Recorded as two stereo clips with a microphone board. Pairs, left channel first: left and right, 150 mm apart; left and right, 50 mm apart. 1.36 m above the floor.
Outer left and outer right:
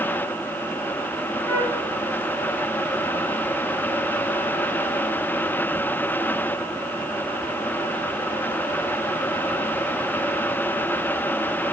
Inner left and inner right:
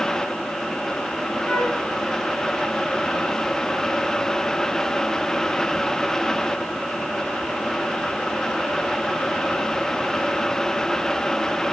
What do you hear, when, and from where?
1.5 s a flute: 15° left (ahead or behind), 5 m